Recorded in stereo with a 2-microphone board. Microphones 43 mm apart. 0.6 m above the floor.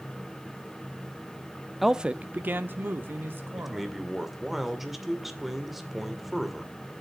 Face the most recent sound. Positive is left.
turn(degrees=-5)  # may be behind; listen again after turning